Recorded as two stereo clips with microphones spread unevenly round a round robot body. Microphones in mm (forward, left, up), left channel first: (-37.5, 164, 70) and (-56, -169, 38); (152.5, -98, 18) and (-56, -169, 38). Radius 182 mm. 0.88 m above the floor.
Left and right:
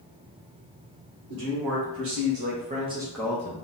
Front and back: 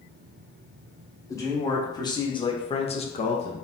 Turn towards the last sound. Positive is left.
turn(degrees=50)